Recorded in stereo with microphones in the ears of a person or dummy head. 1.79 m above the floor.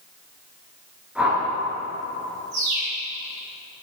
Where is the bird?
50° right (ahead or behind), 2 m.